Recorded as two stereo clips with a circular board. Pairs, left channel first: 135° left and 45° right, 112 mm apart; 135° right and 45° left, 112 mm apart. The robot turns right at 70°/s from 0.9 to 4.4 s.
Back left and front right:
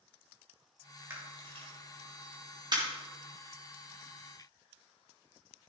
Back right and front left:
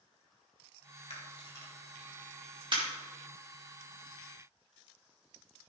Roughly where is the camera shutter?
Right.